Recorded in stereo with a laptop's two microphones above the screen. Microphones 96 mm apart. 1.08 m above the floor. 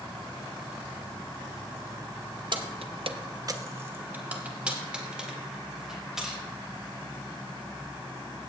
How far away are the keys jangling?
About 0.8 m.